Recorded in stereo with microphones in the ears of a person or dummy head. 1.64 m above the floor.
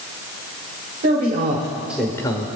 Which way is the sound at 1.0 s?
45° right (ahead or behind).